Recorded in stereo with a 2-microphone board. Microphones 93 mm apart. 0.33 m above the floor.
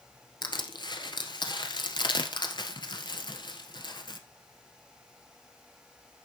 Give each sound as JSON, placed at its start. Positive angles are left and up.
{"t": 0.4, "sound": "crushing", "side_deg": 55, "distance_m": 1.4}